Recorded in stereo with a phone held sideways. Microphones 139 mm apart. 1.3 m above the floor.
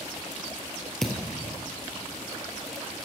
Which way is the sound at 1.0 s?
5° left (ahead or behind).